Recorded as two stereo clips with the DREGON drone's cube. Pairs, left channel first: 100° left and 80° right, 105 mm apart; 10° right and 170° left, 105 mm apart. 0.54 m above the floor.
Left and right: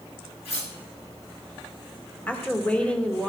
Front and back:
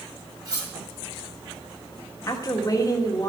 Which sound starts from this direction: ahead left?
A woman speaking, at 2.3 s.